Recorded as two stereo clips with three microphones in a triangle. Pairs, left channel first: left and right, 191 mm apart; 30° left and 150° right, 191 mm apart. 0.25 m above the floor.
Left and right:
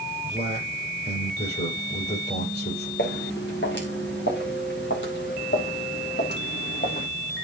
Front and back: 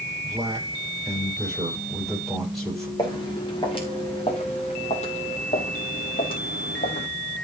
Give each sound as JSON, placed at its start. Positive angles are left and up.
{"t": 0.2, "sound": "a man speaking", "azimuth_deg": 120, "distance_m": 6.5}
{"t": 3.0, "sound": "footsteps", "azimuth_deg": 95, "distance_m": 4.0}